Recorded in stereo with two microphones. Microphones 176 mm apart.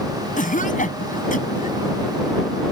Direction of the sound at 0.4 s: 50° left (ahead or behind).